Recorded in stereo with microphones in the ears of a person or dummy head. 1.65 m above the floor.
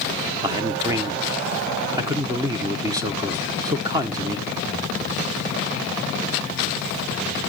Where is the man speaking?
25° right (ahead or behind), 0.8 m.